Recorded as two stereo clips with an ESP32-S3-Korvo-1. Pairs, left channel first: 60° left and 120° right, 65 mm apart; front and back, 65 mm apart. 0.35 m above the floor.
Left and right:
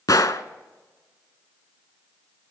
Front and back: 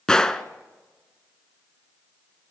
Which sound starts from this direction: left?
A gunshot, at 0.1 s.